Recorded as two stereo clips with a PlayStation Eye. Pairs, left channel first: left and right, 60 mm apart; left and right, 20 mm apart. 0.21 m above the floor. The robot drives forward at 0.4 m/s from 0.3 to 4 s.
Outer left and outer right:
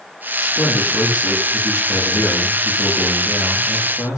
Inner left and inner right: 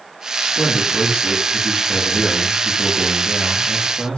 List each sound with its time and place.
0.4 s a man speaking: 80° left, 9 m; by 4.2 s 70° left (ahead or behind), 9.5 m